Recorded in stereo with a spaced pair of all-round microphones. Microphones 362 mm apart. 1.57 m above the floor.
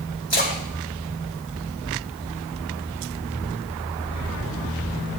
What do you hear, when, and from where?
0.3 s a splash: 30° left (ahead or behind), 2.5 m